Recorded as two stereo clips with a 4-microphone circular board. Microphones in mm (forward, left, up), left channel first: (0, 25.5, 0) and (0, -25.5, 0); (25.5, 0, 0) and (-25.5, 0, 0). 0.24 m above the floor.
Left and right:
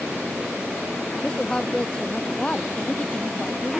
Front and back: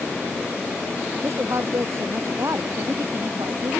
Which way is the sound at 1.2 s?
165° left.